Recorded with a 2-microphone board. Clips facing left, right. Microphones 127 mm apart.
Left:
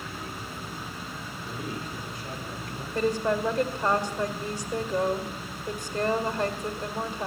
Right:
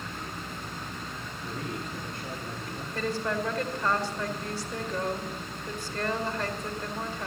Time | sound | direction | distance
1.4 | a man speaking | 65° right (ahead or behind) | 8.5 m
3.0 | a woman speaking | 20° left (ahead or behind) | 2 m